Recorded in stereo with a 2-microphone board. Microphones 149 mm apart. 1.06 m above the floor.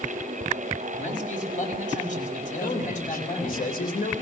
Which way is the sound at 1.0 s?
55° left (ahead or behind).